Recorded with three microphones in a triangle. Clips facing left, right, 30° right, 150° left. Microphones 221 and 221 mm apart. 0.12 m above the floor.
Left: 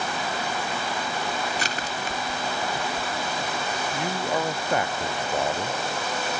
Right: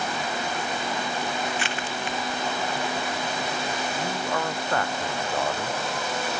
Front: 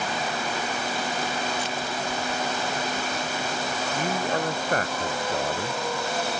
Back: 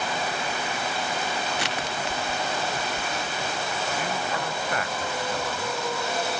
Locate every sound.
1.6 s crushing: 140° left
3.9 s a man speaking: 15° left